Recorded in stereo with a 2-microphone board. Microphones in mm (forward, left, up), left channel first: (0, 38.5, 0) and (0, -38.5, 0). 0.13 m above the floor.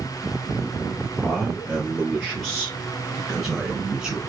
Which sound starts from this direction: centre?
A man speaking, at 1.2 s.